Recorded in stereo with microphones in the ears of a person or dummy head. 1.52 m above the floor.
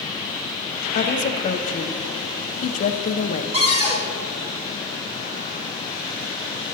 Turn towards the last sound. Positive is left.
turn(degrees=-25)  # may be behind; listen again after turning